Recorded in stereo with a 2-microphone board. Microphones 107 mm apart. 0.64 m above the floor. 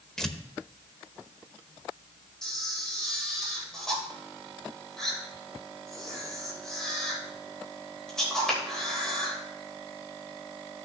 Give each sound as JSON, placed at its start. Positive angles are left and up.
{"t": 0.2, "sound": "tearing paper", "side_deg": 5, "distance_m": 0.7}
{"t": 2.4, "sound": "a camera shutter", "side_deg": 5, "distance_m": 2.5}